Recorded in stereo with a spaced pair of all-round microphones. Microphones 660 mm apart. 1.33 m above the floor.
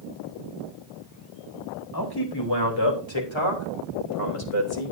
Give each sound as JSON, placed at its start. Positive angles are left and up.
{"t": 1.9, "sound": "a man speaking", "side_deg": 35, "distance_m": 3.5}